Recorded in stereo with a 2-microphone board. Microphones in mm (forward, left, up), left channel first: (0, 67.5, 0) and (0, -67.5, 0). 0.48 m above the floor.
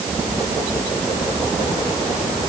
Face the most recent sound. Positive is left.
No sound to turn to.